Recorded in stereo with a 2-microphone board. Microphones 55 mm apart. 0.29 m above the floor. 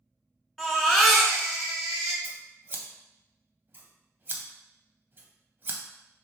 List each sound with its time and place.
0.6 s a baby crying: centre (ahead or behind), 1.0 m
2.2 s scissors: 40° right (ahead or behind), 0.6 m